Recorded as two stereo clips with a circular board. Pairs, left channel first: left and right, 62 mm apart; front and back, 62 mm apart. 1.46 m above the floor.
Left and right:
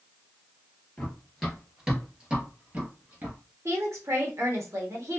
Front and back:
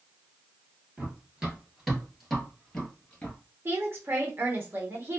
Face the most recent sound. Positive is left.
turn(degrees=-130)